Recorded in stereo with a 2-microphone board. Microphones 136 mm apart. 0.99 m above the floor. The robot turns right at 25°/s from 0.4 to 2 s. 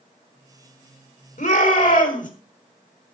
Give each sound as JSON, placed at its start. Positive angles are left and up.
{"t": 1.4, "sound": "a shout", "side_deg": 80, "distance_m": 3.5}